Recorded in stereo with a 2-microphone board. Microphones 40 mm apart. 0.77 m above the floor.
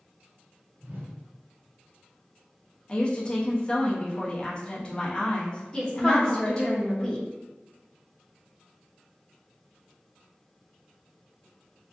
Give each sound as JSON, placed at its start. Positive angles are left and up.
{"t": 0.8, "sound": "a whoosh", "side_deg": -60, "distance_m": 1.1}
{"t": 2.9, "sound": "a woman speaking", "side_deg": 20, "distance_m": 0.5}
{"t": 5.7, "sound": "a woman speaking", "side_deg": 15, "distance_m": 0.9}